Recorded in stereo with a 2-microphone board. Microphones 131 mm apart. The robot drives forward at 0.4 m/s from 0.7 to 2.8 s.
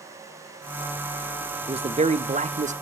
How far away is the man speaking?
About 0.6 m.